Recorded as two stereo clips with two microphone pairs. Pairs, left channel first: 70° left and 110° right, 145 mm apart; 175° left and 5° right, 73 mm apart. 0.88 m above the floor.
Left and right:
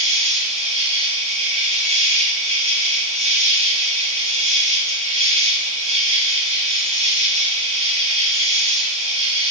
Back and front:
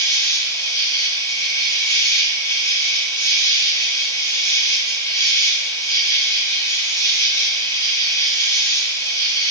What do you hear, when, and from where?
0.0 s an insect: 145° right, 1.7 m